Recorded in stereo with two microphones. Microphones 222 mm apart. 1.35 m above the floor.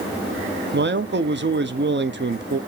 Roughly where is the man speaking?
Right.